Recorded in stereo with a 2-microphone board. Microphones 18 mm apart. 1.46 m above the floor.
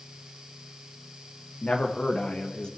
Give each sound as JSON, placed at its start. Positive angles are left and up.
{"t": 1.6, "sound": "a man speaking", "side_deg": 75, "distance_m": 1.7}